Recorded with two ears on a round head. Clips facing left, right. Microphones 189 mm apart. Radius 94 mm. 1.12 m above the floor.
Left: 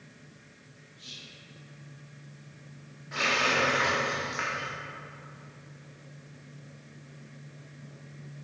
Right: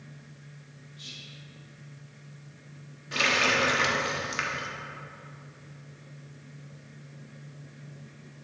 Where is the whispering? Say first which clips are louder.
Right 1 dB; 75° right (ahead or behind), 1.9 m.